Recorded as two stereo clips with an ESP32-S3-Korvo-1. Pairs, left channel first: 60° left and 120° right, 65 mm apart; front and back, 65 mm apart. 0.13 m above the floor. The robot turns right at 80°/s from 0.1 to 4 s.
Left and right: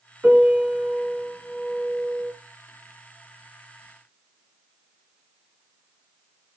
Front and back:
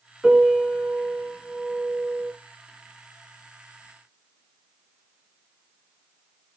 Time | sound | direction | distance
0.2 | a piano | 110° right | 1.6 m